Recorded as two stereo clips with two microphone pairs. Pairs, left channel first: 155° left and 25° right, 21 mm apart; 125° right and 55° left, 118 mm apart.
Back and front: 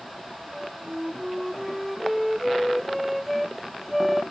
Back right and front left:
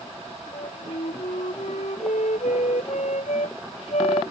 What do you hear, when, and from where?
0.5 s a flute: 110° right